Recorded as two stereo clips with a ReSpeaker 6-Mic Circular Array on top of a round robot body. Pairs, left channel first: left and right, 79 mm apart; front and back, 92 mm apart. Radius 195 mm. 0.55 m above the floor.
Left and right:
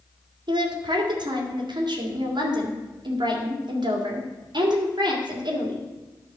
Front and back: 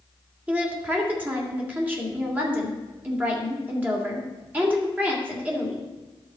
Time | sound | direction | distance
0.5 | a woman speaking | 110° right | 3 m